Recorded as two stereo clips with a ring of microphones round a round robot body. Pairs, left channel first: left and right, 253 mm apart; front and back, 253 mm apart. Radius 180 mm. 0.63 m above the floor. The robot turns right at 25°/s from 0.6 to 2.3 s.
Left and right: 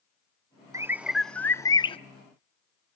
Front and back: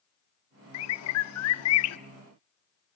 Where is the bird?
10° right, 0.6 m; by 2.0 s 20° left, 0.6 m.